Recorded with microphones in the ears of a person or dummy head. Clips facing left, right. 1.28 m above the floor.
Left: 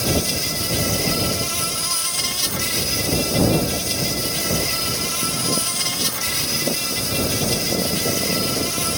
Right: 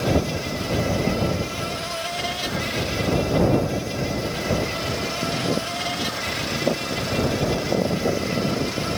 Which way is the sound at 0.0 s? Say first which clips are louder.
Right 1 dB; 55° left (ahead or behind).